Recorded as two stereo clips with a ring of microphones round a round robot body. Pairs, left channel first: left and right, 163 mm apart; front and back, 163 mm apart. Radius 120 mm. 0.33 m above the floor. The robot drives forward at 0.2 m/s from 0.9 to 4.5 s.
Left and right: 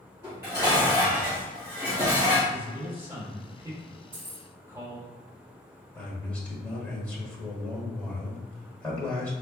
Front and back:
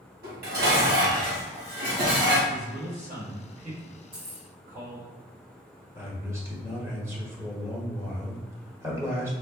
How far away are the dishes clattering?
About 1.6 m.